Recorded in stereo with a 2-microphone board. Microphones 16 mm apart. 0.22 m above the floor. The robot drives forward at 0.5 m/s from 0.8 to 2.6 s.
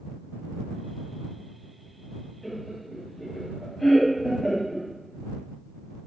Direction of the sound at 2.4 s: 15° left (ahead or behind).